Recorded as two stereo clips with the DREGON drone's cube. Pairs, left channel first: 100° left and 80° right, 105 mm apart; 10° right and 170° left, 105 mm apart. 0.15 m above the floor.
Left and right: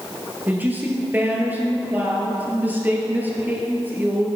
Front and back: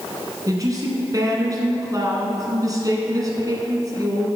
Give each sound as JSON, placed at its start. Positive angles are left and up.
{"t": 0.5, "sound": "a woman speaking", "azimuth_deg": -145, "distance_m": 1.7}